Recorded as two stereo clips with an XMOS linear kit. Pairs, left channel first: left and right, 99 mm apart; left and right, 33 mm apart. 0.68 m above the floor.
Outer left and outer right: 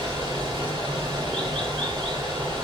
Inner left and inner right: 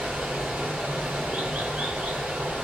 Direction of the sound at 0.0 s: 60° right (ahead or behind).